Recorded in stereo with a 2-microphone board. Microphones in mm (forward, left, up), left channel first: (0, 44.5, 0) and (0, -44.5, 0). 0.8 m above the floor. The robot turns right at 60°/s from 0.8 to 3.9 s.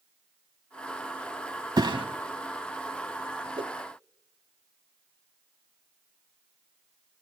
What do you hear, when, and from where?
1.8 s a thud: 55° right (ahead or behind), 2 m; by 2.1 s 70° right (ahead or behind), 2 m
3.6 s a whoosh: 65° right (ahead or behind), 0.7 m; by 3.7 s 55° right (ahead or behind), 0.7 m